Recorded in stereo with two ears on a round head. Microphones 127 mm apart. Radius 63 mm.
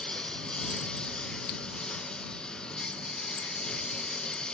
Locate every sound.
0.0 s a lawn mower: 5° left (ahead or behind)